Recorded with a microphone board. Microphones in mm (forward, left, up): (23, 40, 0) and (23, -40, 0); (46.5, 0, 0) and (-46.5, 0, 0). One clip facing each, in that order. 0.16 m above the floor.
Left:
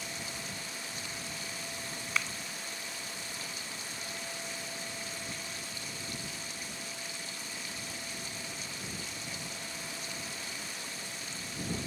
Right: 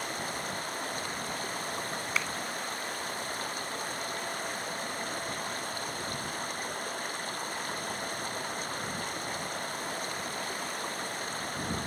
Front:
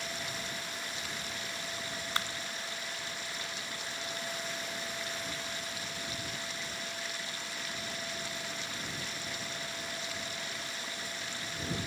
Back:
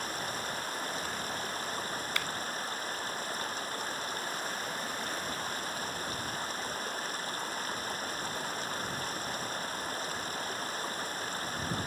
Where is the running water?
130° right.